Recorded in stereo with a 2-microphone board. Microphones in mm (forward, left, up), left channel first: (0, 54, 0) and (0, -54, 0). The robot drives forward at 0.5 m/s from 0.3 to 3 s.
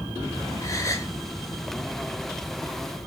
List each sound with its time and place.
0.6 s a gasp: 30° left (ahead or behind), 1.6 m; by 1.1 s 25° left (ahead or behind), 1.7 m